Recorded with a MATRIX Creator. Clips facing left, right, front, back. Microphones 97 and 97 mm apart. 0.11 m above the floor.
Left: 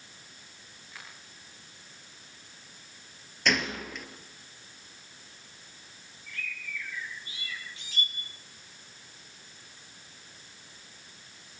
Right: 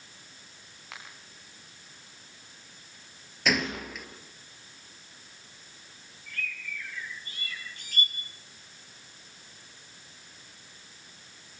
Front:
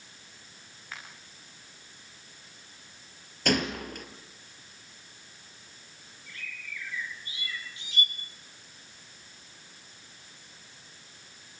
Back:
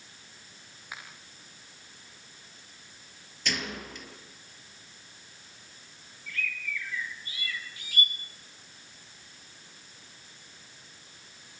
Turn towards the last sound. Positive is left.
turn(degrees=-65)